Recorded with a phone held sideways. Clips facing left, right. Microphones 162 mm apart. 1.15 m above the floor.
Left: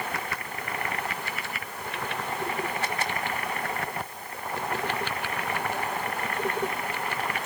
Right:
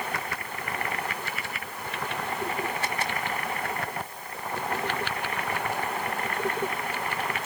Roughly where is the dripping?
I don't hear dripping.